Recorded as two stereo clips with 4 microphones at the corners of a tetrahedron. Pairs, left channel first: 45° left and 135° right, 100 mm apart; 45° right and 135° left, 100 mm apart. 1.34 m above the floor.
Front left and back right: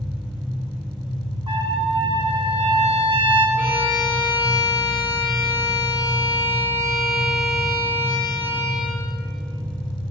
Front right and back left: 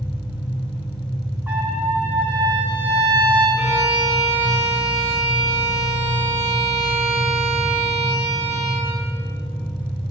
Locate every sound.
0.0 s an engine running: 40° right, 3.5 m
1.5 s a trumpet: 155° right, 1.3 m
3.6 s a violin: 70° right, 3 m